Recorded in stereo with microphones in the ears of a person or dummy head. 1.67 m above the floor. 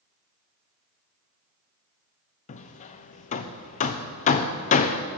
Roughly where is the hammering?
Left.